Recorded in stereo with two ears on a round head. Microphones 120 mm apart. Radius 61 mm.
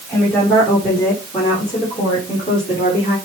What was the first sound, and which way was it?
A woman speaking, 15° left (ahead or behind).